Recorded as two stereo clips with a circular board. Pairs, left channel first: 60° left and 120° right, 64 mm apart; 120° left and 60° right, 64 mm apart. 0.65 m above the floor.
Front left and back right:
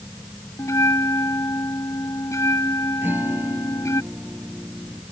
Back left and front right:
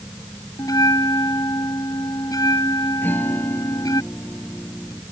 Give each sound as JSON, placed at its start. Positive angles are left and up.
{"t": 0.6, "sound": "a bell", "azimuth_deg": 100}
{"t": 3.0, "sound": "a guitar", "azimuth_deg": 180}